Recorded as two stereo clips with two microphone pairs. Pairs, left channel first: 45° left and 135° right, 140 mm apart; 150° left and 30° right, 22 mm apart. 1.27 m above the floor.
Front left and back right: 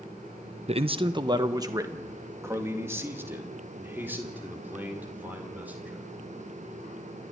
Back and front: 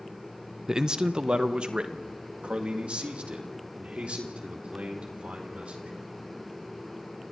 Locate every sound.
0.7 s a man speaking: 95° right, 0.7 m; by 6.1 s 55° right, 5 m